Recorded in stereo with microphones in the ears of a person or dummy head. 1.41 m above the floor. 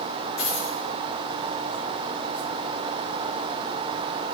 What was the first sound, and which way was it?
A dropped coin, 65° left (ahead or behind).